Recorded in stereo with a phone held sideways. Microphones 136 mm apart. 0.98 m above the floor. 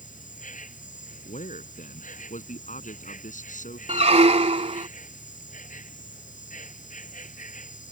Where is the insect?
80° left.